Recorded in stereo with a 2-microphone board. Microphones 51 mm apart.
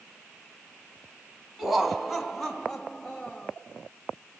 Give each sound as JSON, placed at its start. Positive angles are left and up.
{"t": 1.6, "sound": "laughter", "side_deg": -5, "distance_m": 1.3}